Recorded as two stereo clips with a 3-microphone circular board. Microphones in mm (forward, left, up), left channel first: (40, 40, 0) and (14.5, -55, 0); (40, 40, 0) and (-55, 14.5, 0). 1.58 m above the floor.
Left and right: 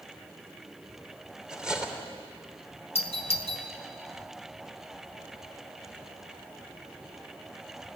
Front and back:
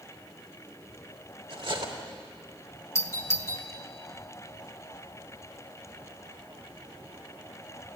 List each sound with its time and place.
1.5 s cutlery clinking: 175° left, 3 m
3.0 s a doorbell: 75° left, 2 m